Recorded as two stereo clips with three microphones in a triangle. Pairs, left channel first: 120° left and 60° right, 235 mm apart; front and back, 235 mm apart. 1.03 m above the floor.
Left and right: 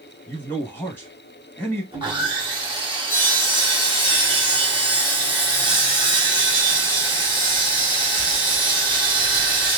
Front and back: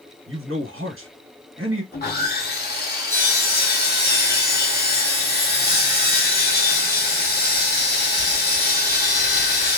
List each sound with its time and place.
0.3 s a man speaking: 160° right, 0.9 m
1.9 s sawing: straight ahead, 0.9 m